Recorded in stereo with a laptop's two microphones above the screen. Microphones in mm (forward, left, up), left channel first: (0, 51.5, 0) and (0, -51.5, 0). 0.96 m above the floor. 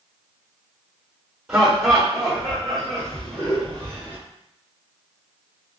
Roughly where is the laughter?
Centre.